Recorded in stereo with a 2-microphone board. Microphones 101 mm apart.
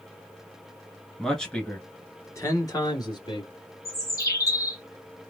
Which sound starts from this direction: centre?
A man speaking, at 1.2 s.